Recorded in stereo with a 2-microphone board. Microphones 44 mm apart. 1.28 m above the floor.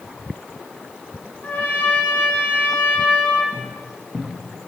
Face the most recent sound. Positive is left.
turn(degrees=-10)  # may be behind; listen again after turning